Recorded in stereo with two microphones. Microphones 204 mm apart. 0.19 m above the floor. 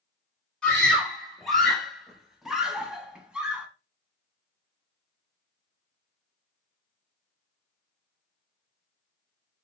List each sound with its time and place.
0.6 s a scream: 5° left (ahead or behind), 1.2 m; by 3.7 s 5° right (ahead or behind), 1.3 m